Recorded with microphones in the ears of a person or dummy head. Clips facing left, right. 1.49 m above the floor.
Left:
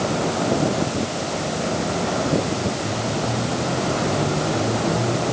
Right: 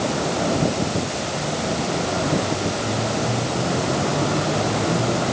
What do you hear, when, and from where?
Only background noise.